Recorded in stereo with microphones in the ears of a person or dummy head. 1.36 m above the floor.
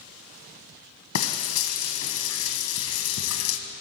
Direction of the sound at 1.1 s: 75° left (ahead or behind).